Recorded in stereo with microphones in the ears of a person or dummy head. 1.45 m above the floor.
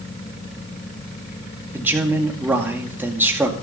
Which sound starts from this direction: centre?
A man speaking, at 1.7 s.